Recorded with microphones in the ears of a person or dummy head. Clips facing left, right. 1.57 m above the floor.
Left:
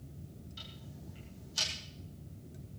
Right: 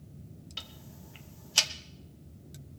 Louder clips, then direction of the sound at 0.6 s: Even; 70° right (ahead or behind).